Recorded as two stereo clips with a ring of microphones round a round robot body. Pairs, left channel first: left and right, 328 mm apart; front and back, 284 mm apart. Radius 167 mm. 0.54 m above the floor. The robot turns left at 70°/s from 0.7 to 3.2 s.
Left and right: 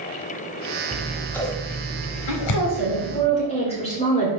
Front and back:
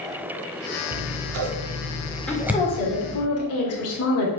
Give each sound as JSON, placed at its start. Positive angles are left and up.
{"t": 0.9, "sound": "scissors", "azimuth_deg": -155, "distance_m": 1.3}
{"t": 2.3, "sound": "a woman speaking", "azimuth_deg": 85, "distance_m": 1.9}